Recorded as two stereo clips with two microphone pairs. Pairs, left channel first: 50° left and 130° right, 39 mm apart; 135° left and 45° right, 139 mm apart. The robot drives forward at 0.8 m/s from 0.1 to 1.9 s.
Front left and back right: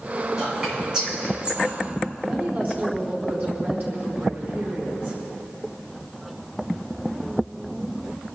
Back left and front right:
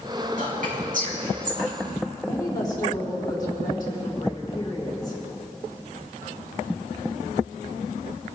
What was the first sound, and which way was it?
Whispering, 55° right.